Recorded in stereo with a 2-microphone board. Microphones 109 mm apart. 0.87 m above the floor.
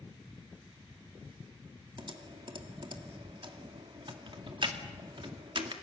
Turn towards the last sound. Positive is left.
turn(degrees=-55)  # may be behind; listen again after turning